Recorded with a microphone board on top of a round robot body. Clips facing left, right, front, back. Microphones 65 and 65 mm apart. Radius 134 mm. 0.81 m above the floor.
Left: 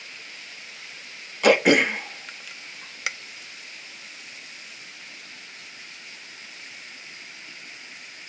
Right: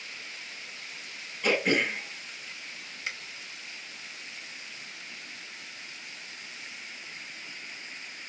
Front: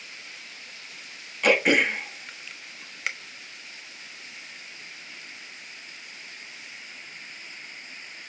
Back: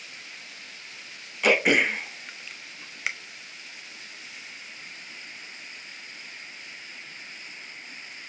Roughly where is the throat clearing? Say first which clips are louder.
Left 8 dB, even; left.